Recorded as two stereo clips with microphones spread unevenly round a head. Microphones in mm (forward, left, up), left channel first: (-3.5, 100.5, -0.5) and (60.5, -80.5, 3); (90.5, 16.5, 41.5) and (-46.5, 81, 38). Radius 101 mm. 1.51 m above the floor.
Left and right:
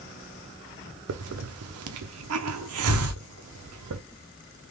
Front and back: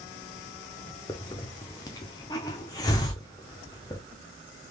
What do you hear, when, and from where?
1.1 s a hiss: 100° right, 0.5 m